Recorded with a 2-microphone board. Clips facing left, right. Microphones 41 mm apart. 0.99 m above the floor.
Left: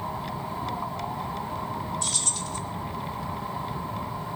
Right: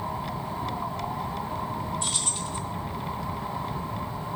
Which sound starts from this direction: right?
Keys jangling, at 2.0 s.